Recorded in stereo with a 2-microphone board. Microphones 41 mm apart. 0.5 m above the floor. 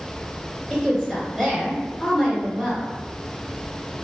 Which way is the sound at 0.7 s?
10° left (ahead or behind).